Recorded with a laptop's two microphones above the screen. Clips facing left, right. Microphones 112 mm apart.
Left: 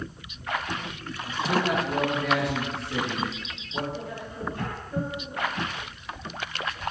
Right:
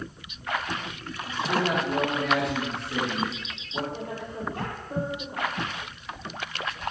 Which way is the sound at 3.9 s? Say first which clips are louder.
Right 1 dB; 70° right (ahead or behind).